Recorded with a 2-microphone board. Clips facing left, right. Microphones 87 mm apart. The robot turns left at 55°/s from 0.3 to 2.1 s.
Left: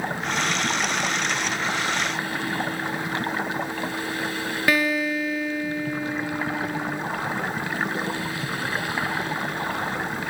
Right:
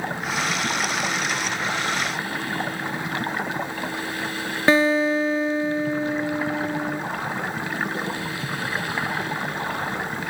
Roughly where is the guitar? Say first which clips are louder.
Right 5 dB; right.